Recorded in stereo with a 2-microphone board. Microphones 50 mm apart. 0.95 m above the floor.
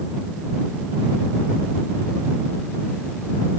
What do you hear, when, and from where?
Only background noise.